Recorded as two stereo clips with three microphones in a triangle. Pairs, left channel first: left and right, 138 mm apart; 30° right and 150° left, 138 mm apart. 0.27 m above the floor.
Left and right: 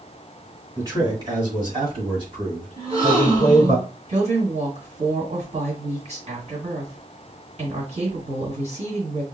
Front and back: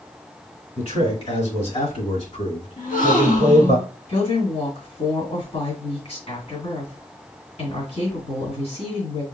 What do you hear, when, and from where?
0.8 s a man speaking: 35° right, 1.8 m; by 3.8 s 50° right, 3 m
2.8 s a gasp: 45° right, 1.5 m
4.1 s a woman speaking: 60° right, 2.5 m